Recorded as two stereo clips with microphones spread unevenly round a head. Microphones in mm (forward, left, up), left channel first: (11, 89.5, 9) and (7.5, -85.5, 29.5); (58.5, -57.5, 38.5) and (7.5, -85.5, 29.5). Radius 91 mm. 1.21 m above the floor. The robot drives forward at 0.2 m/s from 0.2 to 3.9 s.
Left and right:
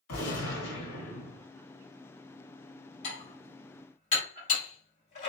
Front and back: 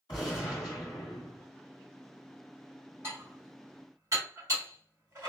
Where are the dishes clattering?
135° left, 1.7 m; by 5.3 s 140° left, 1.8 m.